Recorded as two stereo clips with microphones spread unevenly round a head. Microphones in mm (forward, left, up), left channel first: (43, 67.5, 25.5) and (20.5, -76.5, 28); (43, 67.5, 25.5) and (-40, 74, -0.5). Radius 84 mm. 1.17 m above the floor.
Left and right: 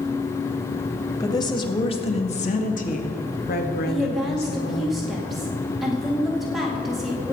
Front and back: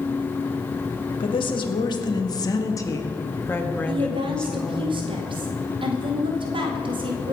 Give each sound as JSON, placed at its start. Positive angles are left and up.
{"t": 1.2, "sound": "a woman speaking", "azimuth_deg": 15, "distance_m": 1.8}
{"t": 3.9, "sound": "a woman speaking", "azimuth_deg": 170, "distance_m": 2.5}